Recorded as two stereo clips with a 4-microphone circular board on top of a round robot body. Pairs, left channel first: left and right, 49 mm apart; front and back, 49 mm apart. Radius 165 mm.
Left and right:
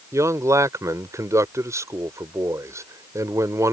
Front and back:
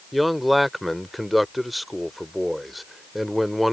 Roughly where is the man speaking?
Right.